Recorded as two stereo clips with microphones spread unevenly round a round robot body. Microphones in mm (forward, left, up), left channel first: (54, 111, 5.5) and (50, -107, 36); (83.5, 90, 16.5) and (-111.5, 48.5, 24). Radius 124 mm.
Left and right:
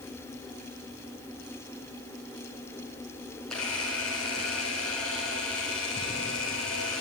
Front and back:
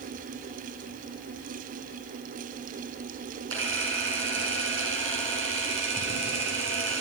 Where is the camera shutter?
175° left, 6 m.